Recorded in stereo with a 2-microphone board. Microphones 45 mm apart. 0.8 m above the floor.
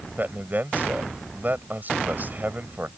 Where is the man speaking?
45° right (ahead or behind).